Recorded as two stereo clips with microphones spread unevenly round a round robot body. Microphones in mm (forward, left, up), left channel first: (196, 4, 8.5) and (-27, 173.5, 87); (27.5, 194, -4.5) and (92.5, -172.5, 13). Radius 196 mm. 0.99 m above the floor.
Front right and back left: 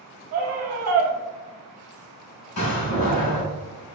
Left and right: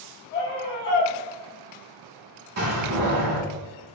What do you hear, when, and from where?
0.3 s a scream: 130° left, 0.8 m
2.6 s a door slam: 35° right, 1.9 m